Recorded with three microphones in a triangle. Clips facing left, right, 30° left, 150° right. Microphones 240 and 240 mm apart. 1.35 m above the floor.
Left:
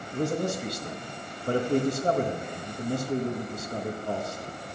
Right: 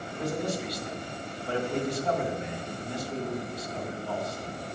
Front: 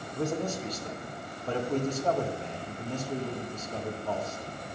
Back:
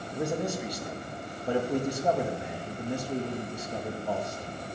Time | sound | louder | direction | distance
0.1 | a man speaking | left 3 dB, back 1 dB | 130° left | 1.9 m